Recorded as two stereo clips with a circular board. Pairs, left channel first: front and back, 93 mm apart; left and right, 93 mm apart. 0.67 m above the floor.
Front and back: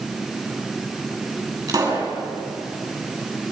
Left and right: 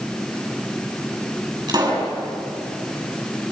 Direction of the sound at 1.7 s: 130° right.